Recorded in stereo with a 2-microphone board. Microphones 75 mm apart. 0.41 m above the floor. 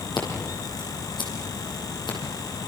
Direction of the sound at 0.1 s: 85° left.